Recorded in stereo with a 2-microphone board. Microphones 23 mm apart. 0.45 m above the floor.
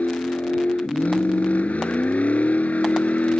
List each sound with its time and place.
0.0 s a vehicle: 85° left